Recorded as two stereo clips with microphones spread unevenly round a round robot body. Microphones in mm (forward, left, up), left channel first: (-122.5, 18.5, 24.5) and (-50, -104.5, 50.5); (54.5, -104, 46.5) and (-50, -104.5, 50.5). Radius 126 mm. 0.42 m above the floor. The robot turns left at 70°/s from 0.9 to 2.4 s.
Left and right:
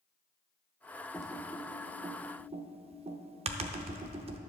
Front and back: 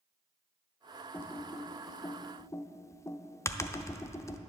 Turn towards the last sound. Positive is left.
turn(degrees=-35)